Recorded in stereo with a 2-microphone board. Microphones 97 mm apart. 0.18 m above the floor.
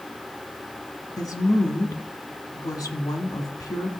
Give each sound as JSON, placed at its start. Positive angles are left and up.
{"t": 1.2, "sound": "a woman speaking", "side_deg": 40, "distance_m": 1.3}